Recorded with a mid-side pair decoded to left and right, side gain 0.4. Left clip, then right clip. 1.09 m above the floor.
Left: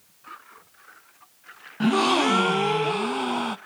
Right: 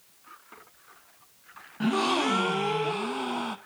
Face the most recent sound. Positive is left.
turn(degrees=35)